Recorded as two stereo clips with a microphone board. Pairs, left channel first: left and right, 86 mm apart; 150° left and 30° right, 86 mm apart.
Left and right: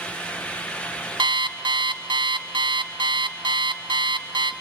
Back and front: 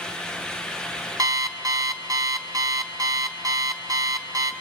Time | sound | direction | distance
1.2 | an alarm clock | 75° right | 1.6 m